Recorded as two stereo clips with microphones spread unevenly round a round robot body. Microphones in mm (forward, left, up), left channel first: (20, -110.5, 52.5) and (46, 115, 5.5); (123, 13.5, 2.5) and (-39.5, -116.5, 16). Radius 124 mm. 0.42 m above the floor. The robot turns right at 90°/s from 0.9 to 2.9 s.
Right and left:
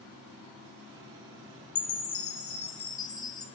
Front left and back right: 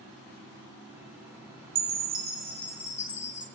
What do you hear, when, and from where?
1.8 s a chime: 125° right, 0.8 m; by 3.5 s 20° right, 0.8 m